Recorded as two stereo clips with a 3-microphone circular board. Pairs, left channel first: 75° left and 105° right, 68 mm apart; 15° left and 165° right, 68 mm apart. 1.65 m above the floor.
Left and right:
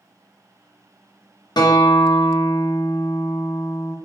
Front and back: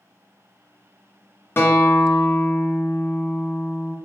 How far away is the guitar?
About 0.6 m.